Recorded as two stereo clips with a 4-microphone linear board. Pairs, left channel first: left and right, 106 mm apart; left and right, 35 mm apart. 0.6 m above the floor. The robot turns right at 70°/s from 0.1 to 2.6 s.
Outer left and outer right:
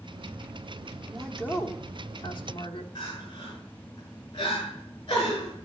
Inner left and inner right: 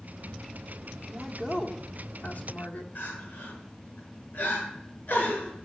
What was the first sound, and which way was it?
A woman speaking, 5° right.